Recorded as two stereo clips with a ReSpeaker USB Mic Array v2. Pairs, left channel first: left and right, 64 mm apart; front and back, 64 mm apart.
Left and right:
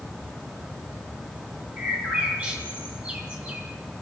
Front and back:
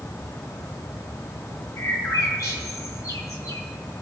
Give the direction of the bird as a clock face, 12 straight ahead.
1 o'clock.